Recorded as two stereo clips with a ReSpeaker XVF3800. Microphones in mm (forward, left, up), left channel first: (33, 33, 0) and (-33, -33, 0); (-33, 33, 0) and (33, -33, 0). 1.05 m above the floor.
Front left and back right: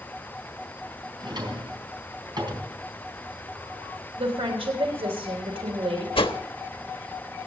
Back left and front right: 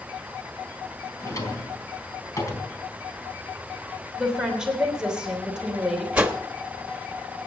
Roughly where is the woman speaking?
Behind right.